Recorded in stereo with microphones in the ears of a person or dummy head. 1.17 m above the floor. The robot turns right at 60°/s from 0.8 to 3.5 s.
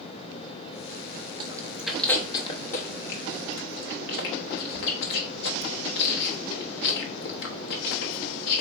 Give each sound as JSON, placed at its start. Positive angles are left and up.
{"t": 1.4, "sound": "chewing", "side_deg": -30, "distance_m": 0.8}